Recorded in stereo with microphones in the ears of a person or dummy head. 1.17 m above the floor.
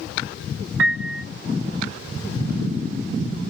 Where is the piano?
70° right (ahead or behind), 0.9 m.